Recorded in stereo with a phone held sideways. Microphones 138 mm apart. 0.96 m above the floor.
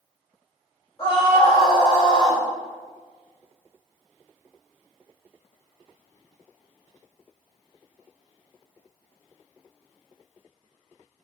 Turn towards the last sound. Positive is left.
turn(degrees=30)  # may be behind; listen again after turning